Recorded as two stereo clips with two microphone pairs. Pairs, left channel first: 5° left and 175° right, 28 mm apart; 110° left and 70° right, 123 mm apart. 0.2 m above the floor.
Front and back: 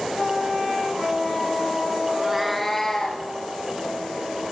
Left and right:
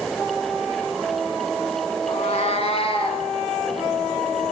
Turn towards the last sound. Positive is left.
turn(degrees=70)